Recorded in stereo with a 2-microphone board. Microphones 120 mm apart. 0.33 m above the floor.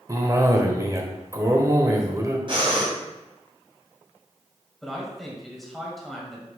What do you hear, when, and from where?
0.1 s a cough: 25° right (ahead or behind), 1.0 m
2.5 s breathing: 45° right (ahead or behind), 2 m
4.8 s a man speaking: centre (ahead or behind), 1.9 m